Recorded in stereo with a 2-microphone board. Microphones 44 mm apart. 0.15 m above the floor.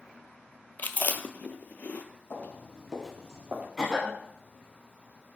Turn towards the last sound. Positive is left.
turn(degrees=-5)  # may be behind; listen again after turning